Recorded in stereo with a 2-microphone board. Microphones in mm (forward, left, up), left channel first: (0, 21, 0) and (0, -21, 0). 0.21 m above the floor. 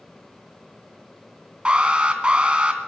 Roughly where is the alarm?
Right.